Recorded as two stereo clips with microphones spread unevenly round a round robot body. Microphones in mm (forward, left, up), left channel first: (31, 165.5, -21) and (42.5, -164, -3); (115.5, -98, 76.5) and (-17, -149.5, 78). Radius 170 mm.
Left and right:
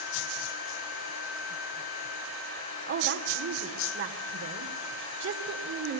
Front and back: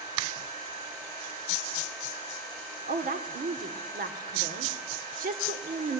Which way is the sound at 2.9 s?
145° right.